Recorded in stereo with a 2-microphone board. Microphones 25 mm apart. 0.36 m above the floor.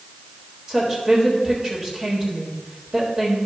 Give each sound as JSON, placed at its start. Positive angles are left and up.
{"t": 0.7, "sound": "a woman speaking", "side_deg": -30, "distance_m": 1.5}